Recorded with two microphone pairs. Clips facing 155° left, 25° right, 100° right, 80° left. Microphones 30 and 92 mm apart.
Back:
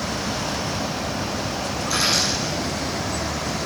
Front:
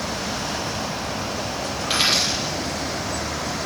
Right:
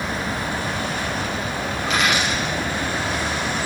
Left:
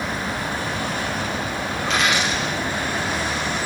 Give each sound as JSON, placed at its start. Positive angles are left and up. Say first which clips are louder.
{"t": 1.8, "sound": "a dropped coin", "louder": "front 1 dB, even", "azimuth_deg": -10, "distance_m": 4.5}